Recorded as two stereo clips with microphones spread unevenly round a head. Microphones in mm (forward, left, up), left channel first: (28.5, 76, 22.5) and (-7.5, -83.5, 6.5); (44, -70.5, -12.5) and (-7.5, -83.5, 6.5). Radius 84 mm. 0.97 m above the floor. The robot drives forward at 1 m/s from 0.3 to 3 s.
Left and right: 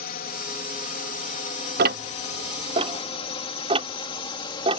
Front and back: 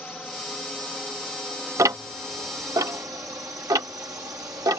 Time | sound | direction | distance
0.0 | a drone | 95° left | ?
1.8 | ticking | 135° right | ?